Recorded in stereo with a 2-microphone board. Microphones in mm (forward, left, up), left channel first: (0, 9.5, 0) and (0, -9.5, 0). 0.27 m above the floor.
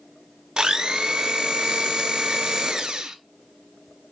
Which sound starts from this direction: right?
A blender, at 0.6 s.